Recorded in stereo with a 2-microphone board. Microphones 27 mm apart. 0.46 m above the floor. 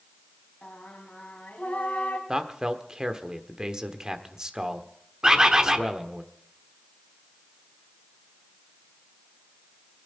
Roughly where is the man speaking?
Right.